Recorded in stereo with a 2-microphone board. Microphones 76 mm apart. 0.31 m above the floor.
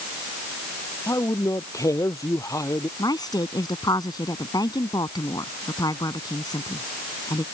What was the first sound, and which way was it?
A man speaking, 45° left (ahead or behind).